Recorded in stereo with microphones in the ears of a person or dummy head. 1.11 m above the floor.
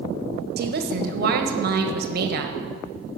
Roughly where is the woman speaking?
Right.